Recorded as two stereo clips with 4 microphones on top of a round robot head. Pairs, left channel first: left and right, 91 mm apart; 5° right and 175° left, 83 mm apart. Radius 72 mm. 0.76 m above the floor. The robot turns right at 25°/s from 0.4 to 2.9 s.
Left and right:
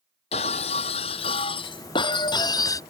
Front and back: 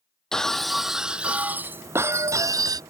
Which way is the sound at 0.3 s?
80° left.